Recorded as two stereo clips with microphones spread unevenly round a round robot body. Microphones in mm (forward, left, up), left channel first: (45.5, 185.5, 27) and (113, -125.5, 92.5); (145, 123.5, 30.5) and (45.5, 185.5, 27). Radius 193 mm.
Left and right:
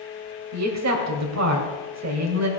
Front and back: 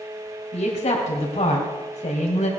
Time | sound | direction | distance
0.5 | a woman speaking | 40° right | 2.5 m